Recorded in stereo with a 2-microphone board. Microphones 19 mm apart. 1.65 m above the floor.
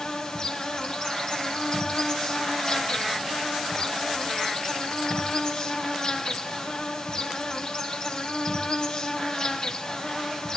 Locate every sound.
0.0 s an insect: 45° left (ahead or behind), 3 m